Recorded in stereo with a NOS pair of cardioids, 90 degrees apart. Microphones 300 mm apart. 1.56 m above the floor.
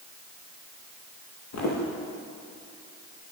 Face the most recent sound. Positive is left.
turn(degrees=70)